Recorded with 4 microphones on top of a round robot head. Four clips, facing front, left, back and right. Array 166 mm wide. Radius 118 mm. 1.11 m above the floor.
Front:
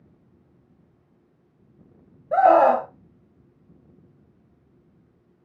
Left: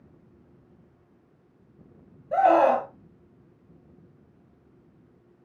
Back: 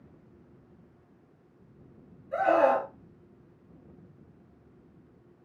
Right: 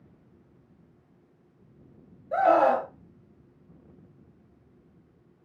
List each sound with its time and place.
2.3 s a scream: 15° left, 0.9 m